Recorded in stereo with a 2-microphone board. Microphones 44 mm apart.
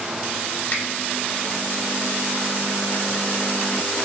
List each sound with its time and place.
0.7 s a finger snap: 45° left (ahead or behind), 1.9 m